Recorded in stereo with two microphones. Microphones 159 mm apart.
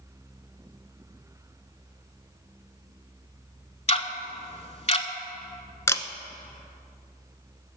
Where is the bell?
No bell in this recording.